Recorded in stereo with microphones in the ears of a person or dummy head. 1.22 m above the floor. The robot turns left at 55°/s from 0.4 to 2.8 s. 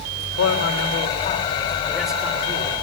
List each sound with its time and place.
0.4 s a man speaking: 90° left, 3.5 m; by 2.7 s 40° right, 3.5 m